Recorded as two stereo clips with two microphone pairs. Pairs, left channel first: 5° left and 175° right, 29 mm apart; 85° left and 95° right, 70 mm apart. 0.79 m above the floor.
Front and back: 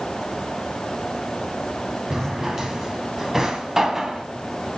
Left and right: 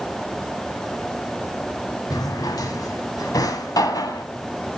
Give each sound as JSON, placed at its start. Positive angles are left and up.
{"t": 2.1, "sound": "a drawer", "azimuth_deg": 110, "distance_m": 2.0}